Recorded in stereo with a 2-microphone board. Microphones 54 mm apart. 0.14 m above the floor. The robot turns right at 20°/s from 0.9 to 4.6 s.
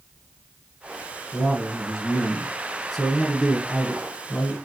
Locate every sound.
1.3 s a man speaking: 20° right, 1.8 m; by 4.6 s 45° left, 1.8 m